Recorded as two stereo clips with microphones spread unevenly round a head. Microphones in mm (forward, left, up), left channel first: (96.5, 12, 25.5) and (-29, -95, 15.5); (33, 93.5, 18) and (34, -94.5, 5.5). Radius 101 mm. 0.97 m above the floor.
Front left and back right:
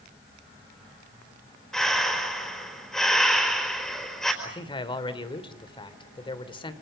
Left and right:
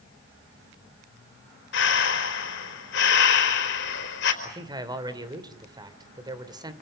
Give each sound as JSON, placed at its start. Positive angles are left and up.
{"t": 1.7, "sound": "breathing", "azimuth_deg": 130, "distance_m": 4.0}
{"t": 4.4, "sound": "a man speaking", "azimuth_deg": -20, "distance_m": 3.0}